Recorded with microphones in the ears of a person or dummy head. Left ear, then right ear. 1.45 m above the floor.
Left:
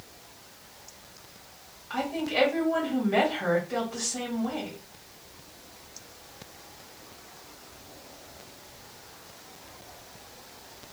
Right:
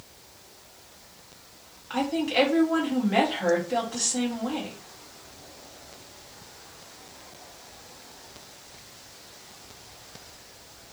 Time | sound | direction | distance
1.9 | a woman speaking | 15° right (ahead or behind) | 1.3 m